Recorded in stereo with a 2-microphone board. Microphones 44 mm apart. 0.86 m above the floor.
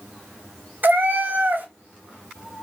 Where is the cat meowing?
50° right (ahead or behind), 0.7 m.